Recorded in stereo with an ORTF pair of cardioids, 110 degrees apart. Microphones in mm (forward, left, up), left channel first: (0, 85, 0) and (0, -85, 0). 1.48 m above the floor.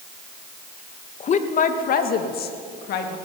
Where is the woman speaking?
40° left, 1.7 m; by 3.2 s 75° left, 2.5 m.